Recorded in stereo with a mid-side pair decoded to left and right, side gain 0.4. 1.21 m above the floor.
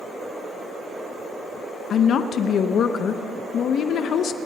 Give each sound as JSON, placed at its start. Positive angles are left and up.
{"t": 1.9, "sound": "a woman speaking", "azimuth_deg": 70, "distance_m": 0.8}